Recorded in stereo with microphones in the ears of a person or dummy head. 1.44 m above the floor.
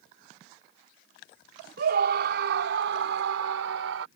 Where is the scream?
65° right (ahead or behind); by 4.1 s 85° right.